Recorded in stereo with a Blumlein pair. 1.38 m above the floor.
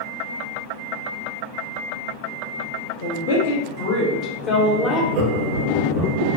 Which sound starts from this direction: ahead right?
Laughter, at 5.1 s.